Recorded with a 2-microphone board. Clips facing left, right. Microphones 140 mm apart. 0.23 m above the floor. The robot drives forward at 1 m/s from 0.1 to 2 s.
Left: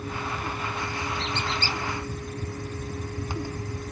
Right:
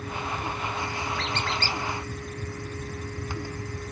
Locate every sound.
1.2 s a squeak: 75° right (ahead or behind), 1.5 m; by 1.8 s 55° right (ahead or behind), 1.7 m